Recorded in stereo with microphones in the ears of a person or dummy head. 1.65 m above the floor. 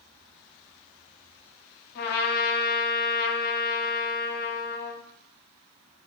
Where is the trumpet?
55° left (ahead or behind), 0.7 m.